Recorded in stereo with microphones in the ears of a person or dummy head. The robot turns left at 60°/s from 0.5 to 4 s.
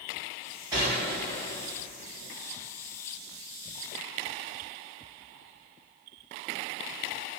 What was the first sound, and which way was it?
A gunshot, 160° right.